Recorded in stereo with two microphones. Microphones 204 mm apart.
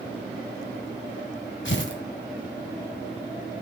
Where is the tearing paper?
80° left, 2 m.